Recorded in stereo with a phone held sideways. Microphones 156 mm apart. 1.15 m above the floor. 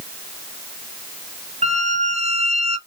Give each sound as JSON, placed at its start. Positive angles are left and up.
{"t": 1.6, "sound": "a squeak", "side_deg": -45, "distance_m": 1.5}